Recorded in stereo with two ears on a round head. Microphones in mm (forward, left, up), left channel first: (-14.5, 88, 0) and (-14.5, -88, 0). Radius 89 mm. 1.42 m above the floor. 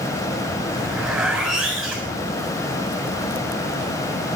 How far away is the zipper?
About 7.5 m.